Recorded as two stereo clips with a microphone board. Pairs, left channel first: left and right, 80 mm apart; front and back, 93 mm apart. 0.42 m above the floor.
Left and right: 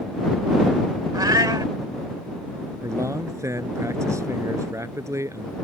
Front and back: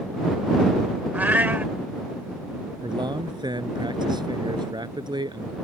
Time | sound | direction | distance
1.1 | a cat meowing | 110° right | ?
2.8 | a man speaking | 140° right | ?